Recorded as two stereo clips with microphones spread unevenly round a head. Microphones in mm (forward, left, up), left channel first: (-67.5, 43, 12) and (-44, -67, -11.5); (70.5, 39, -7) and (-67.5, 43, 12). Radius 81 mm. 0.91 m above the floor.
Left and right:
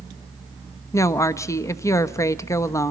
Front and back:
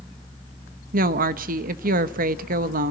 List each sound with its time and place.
0.9 s a woman speaking: 170° left, 1.1 m